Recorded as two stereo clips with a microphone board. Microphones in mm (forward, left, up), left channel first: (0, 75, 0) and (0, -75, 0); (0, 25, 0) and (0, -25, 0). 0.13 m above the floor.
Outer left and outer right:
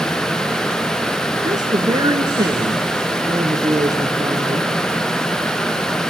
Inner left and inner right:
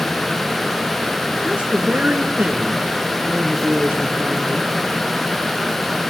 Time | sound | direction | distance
1.4 | a woman speaking | 25° right (ahead or behind) | 1.6 m